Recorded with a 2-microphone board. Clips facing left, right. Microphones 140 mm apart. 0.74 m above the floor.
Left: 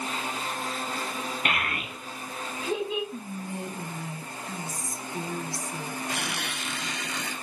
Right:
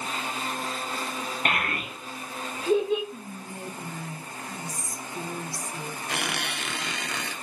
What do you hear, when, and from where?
1.4 s a child speaking: 45° right (ahead or behind), 1.9 m; by 3.0 s 40° right (ahead or behind), 3 m
3.1 s whispering: 25° left (ahead or behind), 1.3 m
6.1 s a squeak: 70° right (ahead or behind), 1.0 m